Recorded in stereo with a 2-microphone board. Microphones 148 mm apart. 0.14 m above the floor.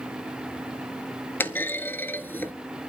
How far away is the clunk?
About 0.6 m.